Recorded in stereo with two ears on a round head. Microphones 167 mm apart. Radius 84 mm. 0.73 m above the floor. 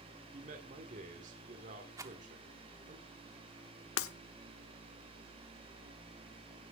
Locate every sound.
0.3 s a man speaking: 40° right (ahead or behind), 1.8 m
2.0 s a rattle: 15° right (ahead or behind), 0.9 m
4.0 s breaking glass: 85° left, 1.0 m